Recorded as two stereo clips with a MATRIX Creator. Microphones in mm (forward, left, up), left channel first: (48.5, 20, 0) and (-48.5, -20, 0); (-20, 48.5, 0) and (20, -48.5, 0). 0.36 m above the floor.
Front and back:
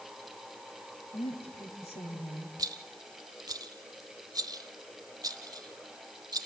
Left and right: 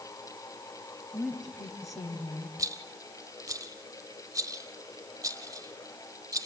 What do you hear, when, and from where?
1.1 s a woman speaking: 20° left, 4.5 m
2.6 s a rattle: 115° right, 0.9 m